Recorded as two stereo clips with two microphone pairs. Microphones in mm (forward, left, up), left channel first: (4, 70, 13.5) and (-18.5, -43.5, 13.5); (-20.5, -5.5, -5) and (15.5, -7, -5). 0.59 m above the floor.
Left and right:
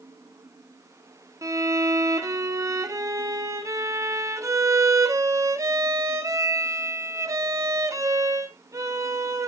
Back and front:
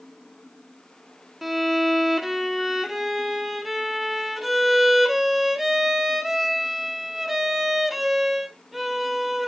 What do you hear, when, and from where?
1.4 s a violin: 85° right, 0.9 m